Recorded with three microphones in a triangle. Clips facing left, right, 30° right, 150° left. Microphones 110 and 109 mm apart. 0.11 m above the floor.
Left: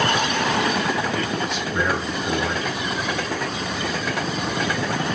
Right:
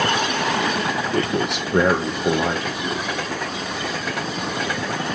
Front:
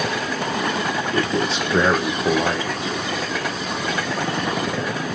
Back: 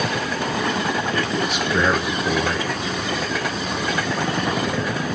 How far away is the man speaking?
About 3.5 m.